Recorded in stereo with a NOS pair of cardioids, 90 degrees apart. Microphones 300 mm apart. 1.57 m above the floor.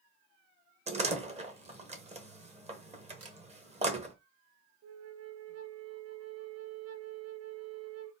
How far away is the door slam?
About 1.0 m.